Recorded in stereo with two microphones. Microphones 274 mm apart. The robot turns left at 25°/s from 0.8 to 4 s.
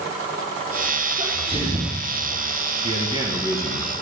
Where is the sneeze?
15° right (ahead or behind), 3 m; by 2.1 s 35° right (ahead or behind), 3 m.